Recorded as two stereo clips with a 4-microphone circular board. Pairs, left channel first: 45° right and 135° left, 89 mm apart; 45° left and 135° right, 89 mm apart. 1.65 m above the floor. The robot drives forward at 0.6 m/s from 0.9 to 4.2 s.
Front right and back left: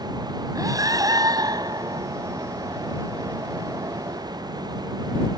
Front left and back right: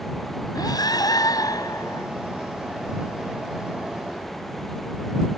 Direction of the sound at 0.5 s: 90° left.